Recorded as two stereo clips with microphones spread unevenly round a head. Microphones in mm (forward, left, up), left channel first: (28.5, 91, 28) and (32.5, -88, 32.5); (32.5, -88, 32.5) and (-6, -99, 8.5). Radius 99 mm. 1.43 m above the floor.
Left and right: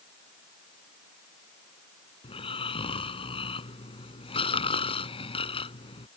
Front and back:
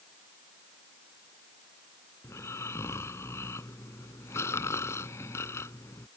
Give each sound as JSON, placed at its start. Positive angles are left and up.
{"t": 2.2, "sound": "snoring", "azimuth_deg": 30}